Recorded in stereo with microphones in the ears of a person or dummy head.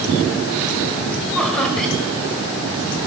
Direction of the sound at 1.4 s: Centre (ahead or behind).